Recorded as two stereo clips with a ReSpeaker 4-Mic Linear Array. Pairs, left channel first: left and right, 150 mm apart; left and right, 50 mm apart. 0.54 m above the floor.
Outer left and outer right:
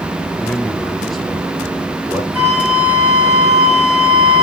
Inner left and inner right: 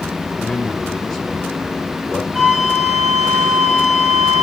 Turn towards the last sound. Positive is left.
turn(degrees=-10)  # may be behind; listen again after turning